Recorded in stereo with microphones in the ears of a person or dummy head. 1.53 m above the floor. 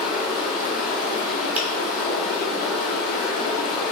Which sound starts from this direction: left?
Running water, at 0.0 s.